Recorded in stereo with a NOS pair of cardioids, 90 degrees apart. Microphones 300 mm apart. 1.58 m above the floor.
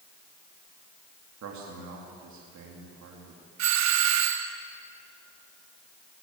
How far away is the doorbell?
About 1.3 m.